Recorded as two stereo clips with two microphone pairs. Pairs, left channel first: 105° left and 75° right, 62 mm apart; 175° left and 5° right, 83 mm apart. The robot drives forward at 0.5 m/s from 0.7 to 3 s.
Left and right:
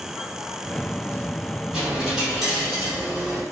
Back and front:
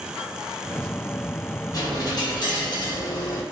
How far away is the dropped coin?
About 1.6 m.